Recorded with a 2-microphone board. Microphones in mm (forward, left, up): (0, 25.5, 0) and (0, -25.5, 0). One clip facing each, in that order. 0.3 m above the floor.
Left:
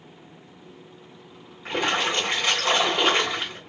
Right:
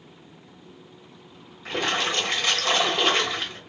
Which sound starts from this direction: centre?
A splash, at 1.6 s.